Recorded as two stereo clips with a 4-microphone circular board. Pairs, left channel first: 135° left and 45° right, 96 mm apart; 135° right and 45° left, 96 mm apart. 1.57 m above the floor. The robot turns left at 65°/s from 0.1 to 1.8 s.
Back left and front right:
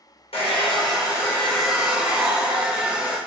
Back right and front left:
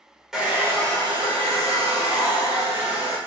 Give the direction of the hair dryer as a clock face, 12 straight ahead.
8 o'clock.